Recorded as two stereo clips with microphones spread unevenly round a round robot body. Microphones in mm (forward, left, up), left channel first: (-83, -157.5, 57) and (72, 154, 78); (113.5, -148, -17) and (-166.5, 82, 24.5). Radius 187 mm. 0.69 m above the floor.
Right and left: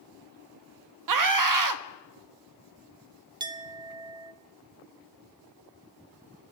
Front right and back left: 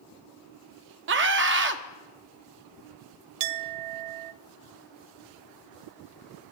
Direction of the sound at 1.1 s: 80° left.